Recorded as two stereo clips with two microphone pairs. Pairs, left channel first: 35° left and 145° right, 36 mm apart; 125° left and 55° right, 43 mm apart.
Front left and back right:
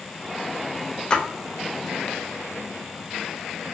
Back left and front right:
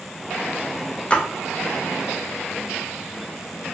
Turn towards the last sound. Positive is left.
turn(degrees=80)